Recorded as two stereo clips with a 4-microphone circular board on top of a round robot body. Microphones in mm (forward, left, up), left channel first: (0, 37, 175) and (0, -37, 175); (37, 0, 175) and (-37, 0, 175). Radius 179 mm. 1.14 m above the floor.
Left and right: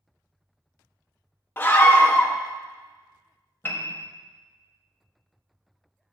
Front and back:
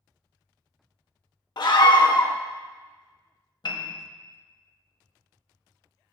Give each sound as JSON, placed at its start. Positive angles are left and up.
{"t": 1.6, "sound": "a scream", "azimuth_deg": 25, "distance_m": 0.8}
{"t": 3.6, "sound": "a piano", "azimuth_deg": 25, "distance_m": 0.9}